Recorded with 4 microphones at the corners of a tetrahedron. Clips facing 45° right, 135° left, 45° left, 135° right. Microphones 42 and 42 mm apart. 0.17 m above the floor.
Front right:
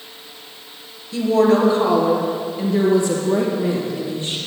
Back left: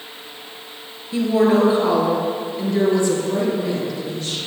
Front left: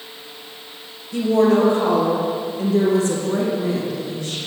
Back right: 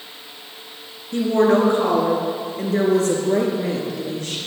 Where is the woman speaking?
160° right, 3.5 m; by 4.4 s 115° right, 4.5 m.